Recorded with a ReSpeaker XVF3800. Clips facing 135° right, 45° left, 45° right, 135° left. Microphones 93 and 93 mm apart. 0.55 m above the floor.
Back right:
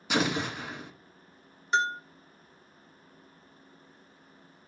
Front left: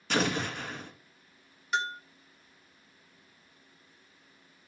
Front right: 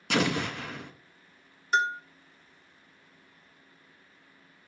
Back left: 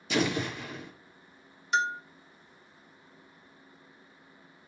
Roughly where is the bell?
Right.